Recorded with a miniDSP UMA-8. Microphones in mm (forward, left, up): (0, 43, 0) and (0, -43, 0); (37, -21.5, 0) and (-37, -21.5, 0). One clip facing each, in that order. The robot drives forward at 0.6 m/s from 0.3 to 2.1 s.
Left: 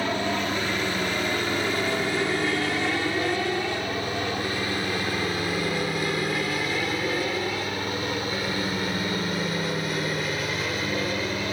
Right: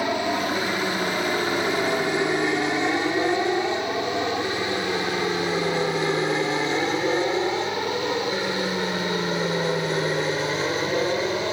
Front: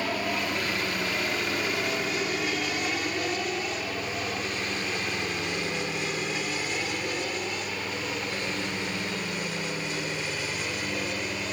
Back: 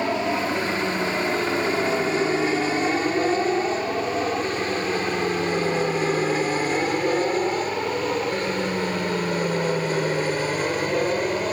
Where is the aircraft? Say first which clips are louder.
Right 2 dB, back 6 dB; 150° right; by 11.5 s 145° right.